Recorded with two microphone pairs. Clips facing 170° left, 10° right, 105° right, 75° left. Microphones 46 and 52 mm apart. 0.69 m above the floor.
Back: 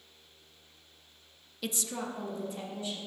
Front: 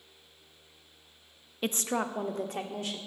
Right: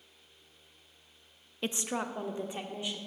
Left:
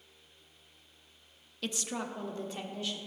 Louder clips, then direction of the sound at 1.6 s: Front 6 dB, right 3 dB; 50° right.